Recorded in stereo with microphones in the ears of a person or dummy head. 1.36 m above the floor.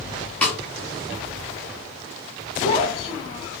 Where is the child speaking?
35° left (ahead or behind), 1.4 m.